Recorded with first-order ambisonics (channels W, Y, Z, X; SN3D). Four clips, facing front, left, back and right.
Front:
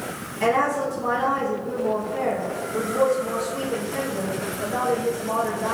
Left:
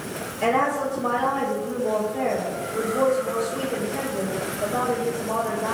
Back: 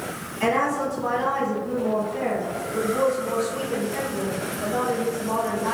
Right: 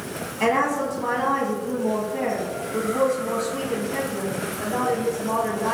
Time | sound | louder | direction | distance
0.4 | a woman speaking | even, front 1 dB | 90° right | 1.2 m